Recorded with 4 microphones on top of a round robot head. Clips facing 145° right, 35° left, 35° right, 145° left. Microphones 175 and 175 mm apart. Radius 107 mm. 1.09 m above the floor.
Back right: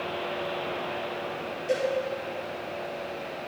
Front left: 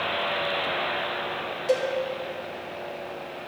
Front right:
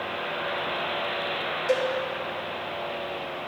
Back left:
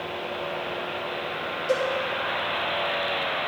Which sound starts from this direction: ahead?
A cowbell, at 1.7 s.